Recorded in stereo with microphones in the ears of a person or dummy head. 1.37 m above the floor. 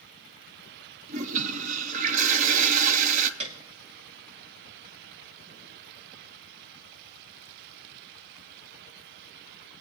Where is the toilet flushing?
45° right (ahead or behind), 0.6 m.